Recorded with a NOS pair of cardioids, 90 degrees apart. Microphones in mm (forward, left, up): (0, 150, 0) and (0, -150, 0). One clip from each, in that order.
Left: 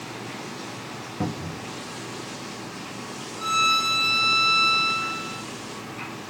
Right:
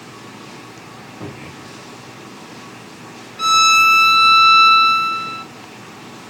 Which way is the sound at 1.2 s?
60° left.